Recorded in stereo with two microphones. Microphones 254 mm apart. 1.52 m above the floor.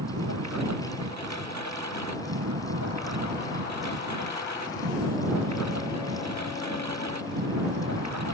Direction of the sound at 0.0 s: 85° right.